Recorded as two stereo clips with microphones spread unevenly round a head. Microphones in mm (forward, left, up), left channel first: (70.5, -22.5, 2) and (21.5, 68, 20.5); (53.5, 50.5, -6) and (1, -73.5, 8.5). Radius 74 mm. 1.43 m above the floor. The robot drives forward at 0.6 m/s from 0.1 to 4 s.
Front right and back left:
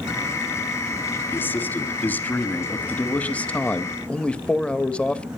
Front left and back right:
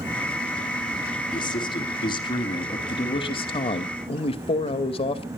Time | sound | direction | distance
1.3 | a man speaking | 10° left | 3.5 m